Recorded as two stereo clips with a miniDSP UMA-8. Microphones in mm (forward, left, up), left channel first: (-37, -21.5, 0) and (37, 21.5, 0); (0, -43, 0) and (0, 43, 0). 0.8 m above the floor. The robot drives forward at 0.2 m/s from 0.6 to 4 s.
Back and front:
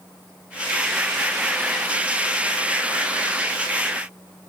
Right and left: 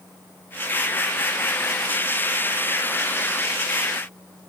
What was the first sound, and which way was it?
Only background noise.